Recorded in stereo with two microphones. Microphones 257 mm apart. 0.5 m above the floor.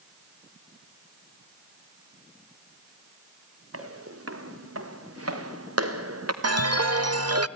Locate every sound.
3.7 s footsteps: 60° right (ahead or behind), 5 m; by 6.3 s 70° right (ahead or behind), 2.5 m
6.4 s a chime: 70° right (ahead or behind), 0.6 m